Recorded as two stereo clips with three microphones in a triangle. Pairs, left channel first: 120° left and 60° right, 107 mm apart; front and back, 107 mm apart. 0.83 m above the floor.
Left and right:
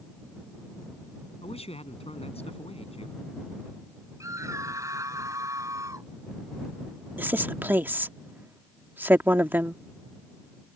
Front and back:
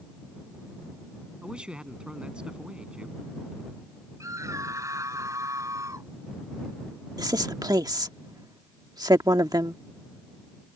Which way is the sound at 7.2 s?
130° right.